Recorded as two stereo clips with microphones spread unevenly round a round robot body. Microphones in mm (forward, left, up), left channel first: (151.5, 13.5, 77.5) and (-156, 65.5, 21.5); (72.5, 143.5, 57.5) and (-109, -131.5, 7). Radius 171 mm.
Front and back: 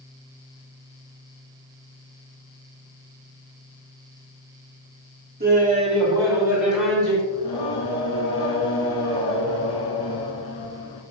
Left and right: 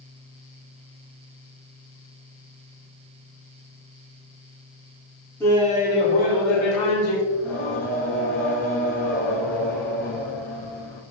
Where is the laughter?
150° left, 1.6 m; by 7.2 s 80° left, 3 m.